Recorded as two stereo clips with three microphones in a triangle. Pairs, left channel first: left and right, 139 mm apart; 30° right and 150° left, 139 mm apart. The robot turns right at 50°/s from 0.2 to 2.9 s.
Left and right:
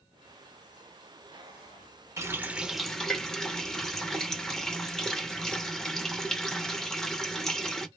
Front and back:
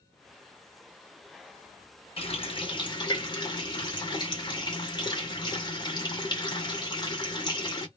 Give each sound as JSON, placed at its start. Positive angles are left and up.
{"t": 2.2, "sound": "a running tap", "azimuth_deg": -30, "distance_m": 0.6}